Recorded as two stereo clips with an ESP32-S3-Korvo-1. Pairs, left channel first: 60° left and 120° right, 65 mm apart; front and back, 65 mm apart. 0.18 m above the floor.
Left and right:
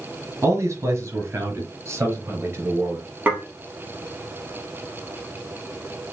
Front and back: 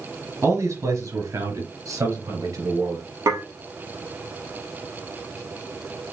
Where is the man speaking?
155° right, 3 m; by 3.1 s 170° right, 4.5 m.